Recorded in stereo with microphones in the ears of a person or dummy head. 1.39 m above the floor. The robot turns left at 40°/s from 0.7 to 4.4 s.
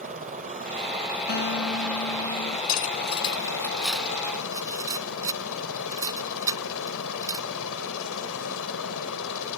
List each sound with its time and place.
0.0 s a helicopter: 135° right; by 9.6 s 75° left
1.3 s a guitar: 130° left; by 2.6 s 75° left
2.7 s cutlery clinking: 50° left (ahead or behind); by 7.5 s 15° right (ahead or behind)